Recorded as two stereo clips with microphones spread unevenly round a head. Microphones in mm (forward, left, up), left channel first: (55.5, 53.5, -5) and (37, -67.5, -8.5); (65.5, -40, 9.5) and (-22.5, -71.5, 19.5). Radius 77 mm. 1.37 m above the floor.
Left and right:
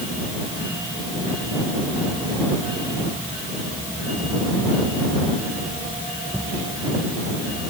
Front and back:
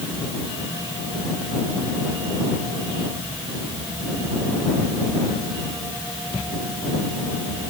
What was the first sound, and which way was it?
Only background noise.